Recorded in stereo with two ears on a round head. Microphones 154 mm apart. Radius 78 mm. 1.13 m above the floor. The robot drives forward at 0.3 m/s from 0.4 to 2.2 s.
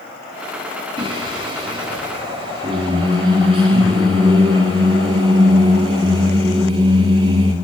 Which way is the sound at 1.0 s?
25° right (ahead or behind).